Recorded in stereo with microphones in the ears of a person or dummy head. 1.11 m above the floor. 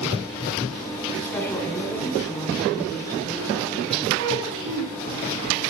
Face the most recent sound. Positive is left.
turn(degrees=-65)  # may be behind; listen again after turning